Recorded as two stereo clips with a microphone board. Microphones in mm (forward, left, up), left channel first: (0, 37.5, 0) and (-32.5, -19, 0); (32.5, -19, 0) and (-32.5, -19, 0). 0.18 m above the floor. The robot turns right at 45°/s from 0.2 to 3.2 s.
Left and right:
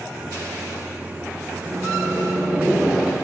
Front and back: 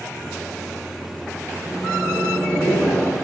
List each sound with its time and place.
1.6 s a microwave: 100° right, 3 m; by 3.1 s 35° right, 3 m